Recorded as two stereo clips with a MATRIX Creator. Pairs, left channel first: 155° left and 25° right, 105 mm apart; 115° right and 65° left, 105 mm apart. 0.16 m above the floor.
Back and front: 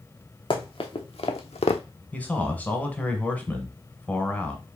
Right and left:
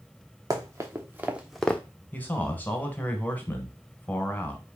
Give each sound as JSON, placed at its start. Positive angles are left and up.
{"t": 0.5, "sound": "running footsteps", "azimuth_deg": 125, "distance_m": 1.2}
{"t": 2.1, "sound": "a man speaking", "azimuth_deg": -155, "distance_m": 1.0}